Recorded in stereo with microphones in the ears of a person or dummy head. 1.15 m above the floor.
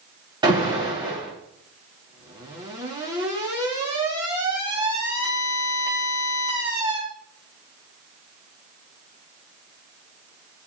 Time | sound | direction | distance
0.4 | an alarm | 20° right (ahead or behind) | 5.5 m